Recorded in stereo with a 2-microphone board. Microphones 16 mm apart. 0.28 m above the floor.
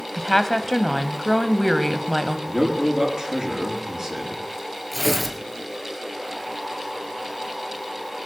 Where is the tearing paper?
5° left (ahead or behind), 2.5 m.